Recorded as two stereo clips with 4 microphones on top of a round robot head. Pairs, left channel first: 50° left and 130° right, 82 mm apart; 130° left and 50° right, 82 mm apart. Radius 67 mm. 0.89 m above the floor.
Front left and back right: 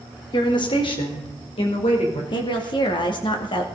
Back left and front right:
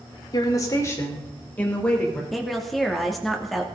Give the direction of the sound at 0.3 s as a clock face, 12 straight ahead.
9 o'clock.